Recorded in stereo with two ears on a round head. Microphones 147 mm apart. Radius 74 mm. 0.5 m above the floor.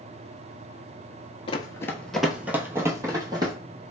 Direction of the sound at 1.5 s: 35° left (ahead or behind).